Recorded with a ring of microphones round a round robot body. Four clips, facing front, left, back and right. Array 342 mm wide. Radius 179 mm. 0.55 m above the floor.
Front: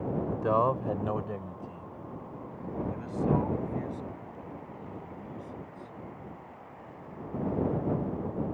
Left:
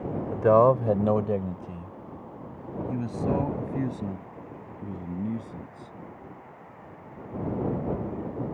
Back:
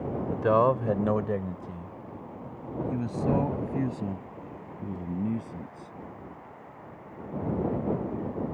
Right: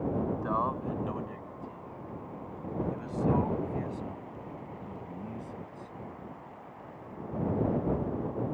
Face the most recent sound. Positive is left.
turn(degrees=150)